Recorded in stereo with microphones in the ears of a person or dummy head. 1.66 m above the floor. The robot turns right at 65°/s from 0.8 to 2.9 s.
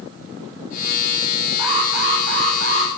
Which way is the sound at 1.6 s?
155° right.